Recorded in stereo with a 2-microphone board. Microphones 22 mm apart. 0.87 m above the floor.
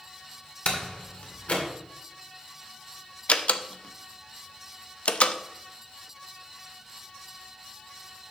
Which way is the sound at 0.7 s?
75° left (ahead or behind).